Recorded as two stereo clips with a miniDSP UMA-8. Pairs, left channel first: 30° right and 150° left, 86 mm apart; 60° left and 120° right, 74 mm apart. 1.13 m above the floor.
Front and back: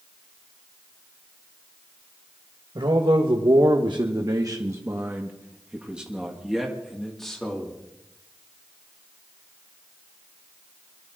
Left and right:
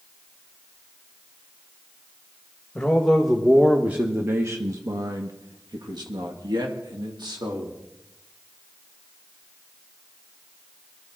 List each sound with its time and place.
2.8 s a man speaking: 140° left, 1.7 m; by 7.8 s 115° right, 3 m